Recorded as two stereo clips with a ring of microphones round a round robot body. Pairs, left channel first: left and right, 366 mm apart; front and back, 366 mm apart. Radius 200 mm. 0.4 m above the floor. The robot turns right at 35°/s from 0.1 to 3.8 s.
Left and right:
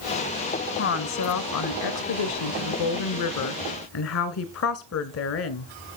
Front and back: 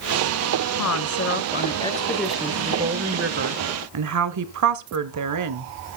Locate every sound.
0.8 s a woman speaking: 35° left, 1.5 m; by 5.7 s 140° left, 1.5 m